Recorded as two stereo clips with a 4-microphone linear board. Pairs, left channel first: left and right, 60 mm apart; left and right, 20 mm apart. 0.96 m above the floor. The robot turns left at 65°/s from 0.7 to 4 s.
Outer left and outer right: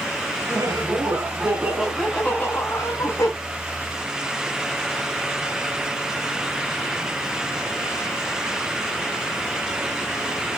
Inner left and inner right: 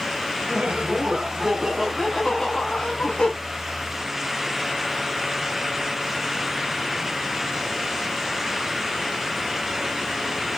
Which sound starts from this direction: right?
Laughter, at 0.5 s.